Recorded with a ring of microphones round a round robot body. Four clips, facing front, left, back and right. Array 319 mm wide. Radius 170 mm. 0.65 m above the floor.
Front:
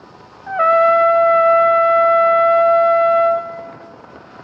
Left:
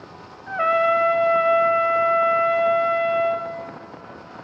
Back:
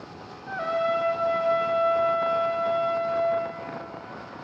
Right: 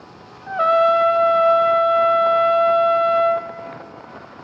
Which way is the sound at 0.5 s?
15° right.